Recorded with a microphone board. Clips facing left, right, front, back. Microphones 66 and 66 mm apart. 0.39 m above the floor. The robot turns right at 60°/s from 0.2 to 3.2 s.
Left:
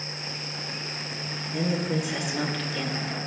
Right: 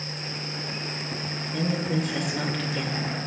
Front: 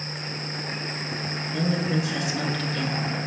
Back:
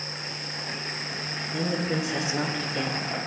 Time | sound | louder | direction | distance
1.5 | a woman speaking | even, front 2 dB | 125° left | 1.2 m